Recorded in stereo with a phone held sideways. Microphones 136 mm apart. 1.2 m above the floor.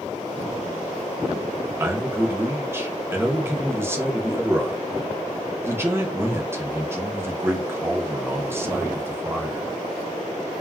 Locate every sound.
1.8 s a man speaking: 20° right (ahead or behind), 0.7 m